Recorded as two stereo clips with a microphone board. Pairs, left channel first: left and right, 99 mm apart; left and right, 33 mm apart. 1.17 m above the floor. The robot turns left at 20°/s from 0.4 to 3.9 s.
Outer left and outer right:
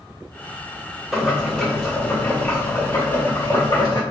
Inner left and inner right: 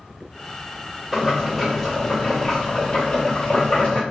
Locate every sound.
1.1 s boiling: straight behind, 1.5 m; by 4.0 s 125° left, 1.5 m